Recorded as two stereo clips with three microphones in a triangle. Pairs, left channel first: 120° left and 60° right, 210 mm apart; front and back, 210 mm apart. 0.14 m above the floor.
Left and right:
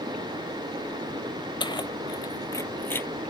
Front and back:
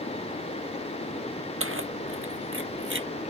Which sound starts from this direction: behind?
Keys jangling, at 1.6 s.